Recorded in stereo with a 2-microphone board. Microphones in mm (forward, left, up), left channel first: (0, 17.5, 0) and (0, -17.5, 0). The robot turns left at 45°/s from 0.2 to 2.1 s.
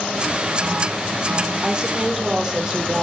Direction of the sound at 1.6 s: 25° right (ahead or behind).